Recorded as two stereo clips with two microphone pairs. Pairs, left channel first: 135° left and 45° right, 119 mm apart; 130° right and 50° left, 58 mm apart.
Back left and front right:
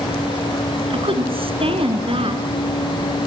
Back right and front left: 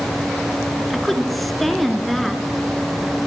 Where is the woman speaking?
45° right, 2 m.